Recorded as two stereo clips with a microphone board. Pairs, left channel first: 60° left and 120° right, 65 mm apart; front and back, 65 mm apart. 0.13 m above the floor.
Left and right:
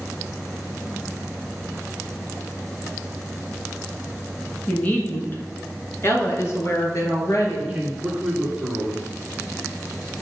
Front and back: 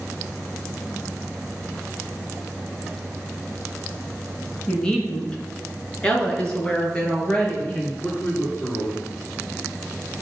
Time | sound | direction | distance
4.7 | a woman speaking | 50° left | 1.5 m
7.6 | a man speaking | 45° right | 2 m